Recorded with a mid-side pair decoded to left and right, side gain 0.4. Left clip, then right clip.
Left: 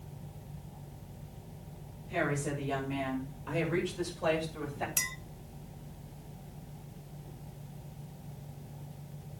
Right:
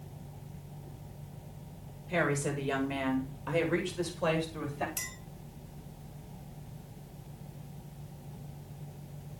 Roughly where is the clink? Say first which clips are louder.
Left 6 dB; ahead left.